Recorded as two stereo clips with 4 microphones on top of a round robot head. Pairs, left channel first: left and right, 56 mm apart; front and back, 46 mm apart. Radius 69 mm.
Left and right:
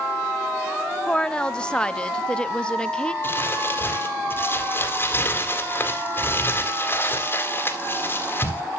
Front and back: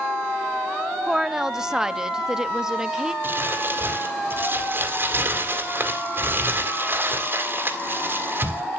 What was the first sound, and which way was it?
A woman speaking, 130° left.